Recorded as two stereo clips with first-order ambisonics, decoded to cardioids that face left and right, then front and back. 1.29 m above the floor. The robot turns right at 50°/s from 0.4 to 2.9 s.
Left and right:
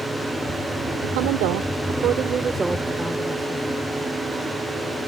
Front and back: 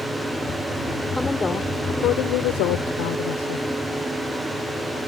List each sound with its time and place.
1.0 s a woman speaking: 95° right; by 3.7 s straight ahead